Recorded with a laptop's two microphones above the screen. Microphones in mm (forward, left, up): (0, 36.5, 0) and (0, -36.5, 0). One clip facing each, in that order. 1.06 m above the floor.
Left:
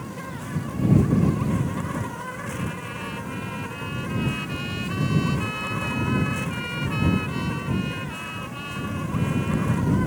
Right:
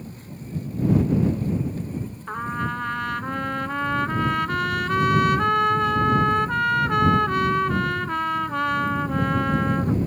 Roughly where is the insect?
Left.